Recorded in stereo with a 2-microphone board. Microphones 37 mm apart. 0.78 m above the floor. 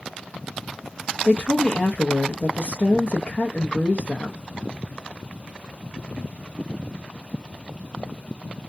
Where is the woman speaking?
35° left (ahead or behind), 0.5 m.